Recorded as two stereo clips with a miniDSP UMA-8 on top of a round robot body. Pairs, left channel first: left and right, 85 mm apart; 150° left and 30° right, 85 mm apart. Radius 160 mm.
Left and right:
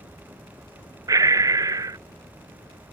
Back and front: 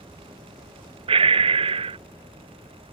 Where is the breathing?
35° right.